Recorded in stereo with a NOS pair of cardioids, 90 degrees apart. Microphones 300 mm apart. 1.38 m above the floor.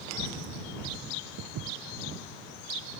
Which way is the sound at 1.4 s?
70° right.